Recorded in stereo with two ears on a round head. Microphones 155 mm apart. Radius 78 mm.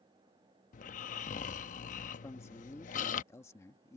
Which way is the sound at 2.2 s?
15° left (ahead or behind).